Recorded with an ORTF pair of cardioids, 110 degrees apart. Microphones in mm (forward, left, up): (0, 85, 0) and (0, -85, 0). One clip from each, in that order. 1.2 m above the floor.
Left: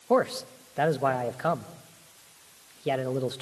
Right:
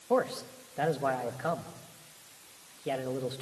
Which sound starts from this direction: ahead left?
A man speaking, at 0.1 s.